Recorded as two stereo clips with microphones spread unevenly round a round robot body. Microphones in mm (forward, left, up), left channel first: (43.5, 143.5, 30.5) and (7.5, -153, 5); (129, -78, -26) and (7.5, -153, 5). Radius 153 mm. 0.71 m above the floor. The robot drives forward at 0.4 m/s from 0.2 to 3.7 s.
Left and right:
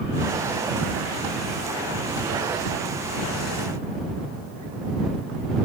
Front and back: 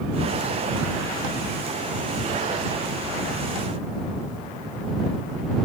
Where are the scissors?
No scissors in this recording.